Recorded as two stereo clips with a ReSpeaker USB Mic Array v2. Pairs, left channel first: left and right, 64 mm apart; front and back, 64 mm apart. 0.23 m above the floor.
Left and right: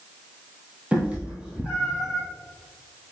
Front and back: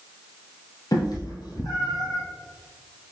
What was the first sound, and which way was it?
A cat meowing, 20° right.